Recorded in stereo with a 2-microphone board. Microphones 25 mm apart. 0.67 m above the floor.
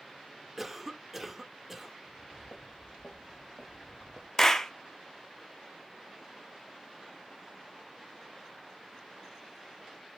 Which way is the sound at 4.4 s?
20° left (ahead or behind).